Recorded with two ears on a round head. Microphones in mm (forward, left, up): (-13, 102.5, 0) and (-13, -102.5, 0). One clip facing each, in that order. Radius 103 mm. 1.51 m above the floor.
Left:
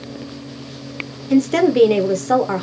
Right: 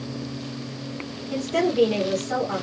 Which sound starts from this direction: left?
A woman speaking, at 1.3 s.